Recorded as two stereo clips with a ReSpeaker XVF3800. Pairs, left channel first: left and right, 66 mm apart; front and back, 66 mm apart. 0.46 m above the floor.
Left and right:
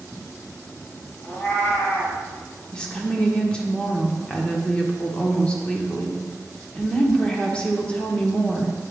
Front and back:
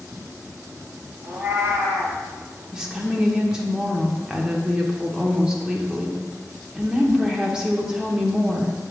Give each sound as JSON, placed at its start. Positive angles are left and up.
{"t": 1.2, "sound": "a cat meowing", "azimuth_deg": 140, "distance_m": 1.9}
{"t": 2.7, "sound": "a woman speaking", "azimuth_deg": 125, "distance_m": 0.9}